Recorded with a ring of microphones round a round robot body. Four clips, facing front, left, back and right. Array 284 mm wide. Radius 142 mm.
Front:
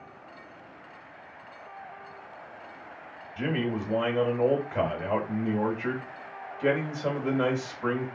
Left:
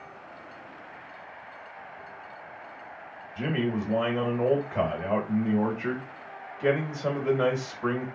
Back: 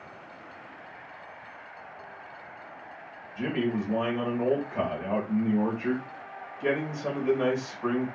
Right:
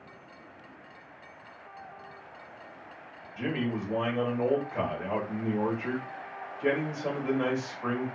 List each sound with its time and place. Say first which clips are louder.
3.4 s a man speaking: left 3 dB, back 1 dB; 40° left, 1.4 m